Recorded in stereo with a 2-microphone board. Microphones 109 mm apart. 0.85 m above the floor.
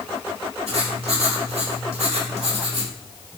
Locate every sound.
0.7 s writing: 75° right (ahead or behind), 2.5 m